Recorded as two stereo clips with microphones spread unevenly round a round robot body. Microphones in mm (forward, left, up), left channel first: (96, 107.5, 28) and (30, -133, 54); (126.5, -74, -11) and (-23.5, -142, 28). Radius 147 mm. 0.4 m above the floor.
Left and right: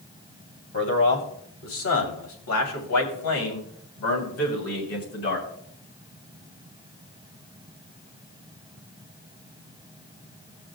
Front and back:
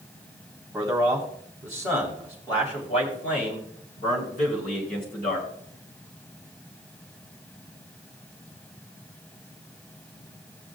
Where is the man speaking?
110° left, 2.5 m; by 5.5 s 60° left, 3.5 m.